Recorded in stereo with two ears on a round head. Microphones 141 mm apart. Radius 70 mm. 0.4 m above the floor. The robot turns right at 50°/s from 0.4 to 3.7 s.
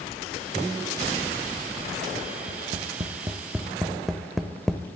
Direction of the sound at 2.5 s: 50° right (ahead or behind).